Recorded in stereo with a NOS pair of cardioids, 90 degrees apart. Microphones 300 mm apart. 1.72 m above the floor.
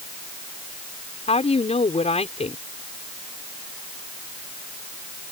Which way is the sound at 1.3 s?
20° left.